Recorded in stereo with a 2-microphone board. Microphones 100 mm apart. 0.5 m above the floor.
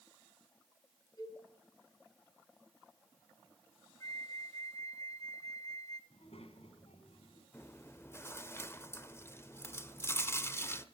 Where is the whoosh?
I don't hear a whoosh.